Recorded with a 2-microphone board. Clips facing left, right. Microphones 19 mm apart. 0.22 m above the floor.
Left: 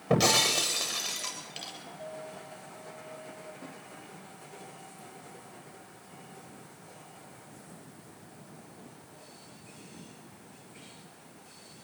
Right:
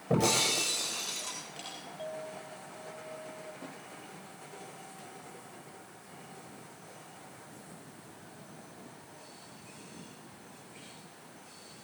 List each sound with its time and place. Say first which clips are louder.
0.1 s breaking glass: left 3 dB; 65° left (ahead or behind), 9 m
2.0 s a clink: right 2 dB; 75° right (ahead or behind), 3.5 m
3.6 s a snare drum: even; 15° right (ahead or behind), 9.5 m